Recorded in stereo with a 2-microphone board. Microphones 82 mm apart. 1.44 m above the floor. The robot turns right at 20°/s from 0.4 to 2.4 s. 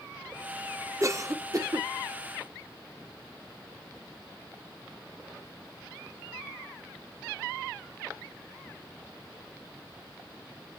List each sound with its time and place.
1.0 s a cough: 35° right (ahead or behind), 0.9 m; by 1.9 s 55° right (ahead or behind), 0.9 m